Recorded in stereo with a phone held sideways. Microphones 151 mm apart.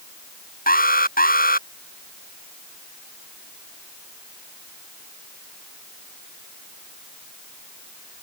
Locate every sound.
0.7 s an alarm: 75° left (ahead or behind)